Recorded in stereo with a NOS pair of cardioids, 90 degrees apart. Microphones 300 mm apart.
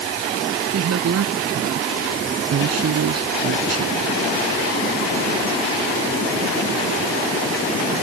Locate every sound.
0.7 s a woman speaking: 55° right